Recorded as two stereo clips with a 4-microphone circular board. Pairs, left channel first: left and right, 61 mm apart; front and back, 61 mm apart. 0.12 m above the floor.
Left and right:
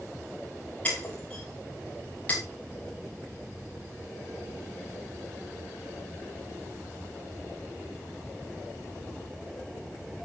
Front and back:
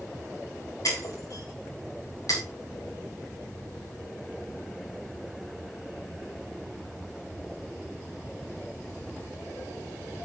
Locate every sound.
0.8 s breaking glass: 25° left, 4 m